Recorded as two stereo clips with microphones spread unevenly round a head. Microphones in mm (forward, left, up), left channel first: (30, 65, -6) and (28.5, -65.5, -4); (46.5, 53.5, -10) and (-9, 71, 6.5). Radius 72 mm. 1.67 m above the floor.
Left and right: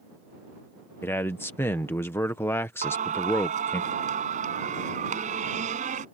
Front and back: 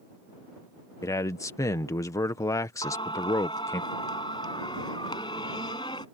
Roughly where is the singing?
Ahead right.